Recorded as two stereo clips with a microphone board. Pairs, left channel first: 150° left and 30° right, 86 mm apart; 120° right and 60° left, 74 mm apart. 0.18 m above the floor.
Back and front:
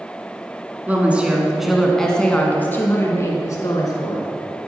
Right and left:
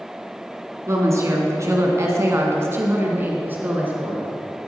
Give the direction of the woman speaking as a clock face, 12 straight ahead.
11 o'clock.